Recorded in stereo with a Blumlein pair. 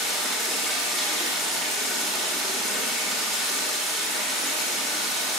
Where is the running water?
Straight ahead, 1.0 m.